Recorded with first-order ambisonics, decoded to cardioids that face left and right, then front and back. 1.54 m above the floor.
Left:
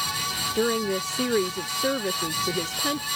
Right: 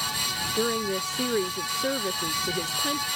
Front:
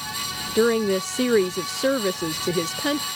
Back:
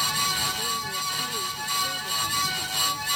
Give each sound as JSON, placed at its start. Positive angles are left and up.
{"t": 0.6, "sound": "a woman speaking", "azimuth_deg": 10}